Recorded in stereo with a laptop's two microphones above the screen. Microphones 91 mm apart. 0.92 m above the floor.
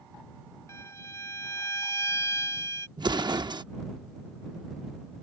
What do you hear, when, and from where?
0.7 s a violin: 35° left (ahead or behind)
3.0 s an explosion: 55° right (ahead or behind)